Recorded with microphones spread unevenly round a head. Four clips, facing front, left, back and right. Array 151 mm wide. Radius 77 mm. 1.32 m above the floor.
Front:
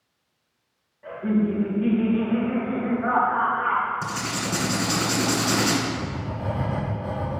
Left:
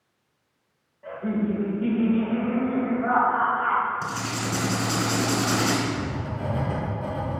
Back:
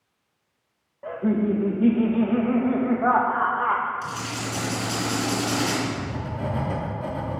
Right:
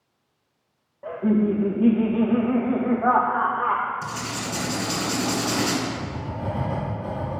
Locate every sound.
1.0 s laughter: 135° right, 1.9 m
4.0 s writing: 35° left, 3 m
5.8 s writing: 150° left, 4 m